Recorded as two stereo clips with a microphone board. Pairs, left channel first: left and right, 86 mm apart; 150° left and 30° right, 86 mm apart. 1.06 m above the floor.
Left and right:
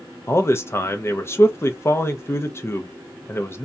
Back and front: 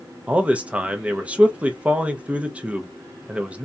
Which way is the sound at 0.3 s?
40° left.